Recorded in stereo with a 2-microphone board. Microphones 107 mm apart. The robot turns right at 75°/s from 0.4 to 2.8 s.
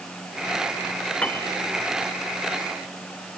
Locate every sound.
1.2 s a piano: 10° left (ahead or behind); by 1.5 s 35° left (ahead or behind)